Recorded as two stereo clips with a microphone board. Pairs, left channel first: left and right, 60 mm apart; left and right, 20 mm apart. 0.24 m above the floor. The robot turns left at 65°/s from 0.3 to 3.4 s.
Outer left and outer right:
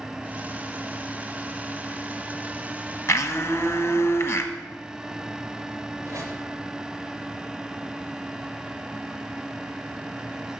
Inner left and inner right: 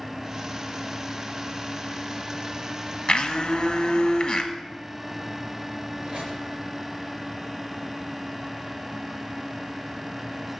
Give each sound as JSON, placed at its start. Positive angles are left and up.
{"t": 3.1, "sound": "a blender", "side_deg": 50, "distance_m": 1.0}
{"t": 6.0, "sound": "a squeak", "side_deg": -50, "distance_m": 3.0}